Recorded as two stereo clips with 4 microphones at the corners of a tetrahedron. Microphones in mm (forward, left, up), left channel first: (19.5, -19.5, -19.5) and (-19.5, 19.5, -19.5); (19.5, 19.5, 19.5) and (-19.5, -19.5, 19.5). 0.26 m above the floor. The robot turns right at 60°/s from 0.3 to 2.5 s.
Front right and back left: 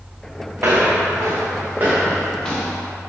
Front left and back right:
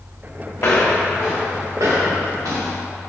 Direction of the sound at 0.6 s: 80° left.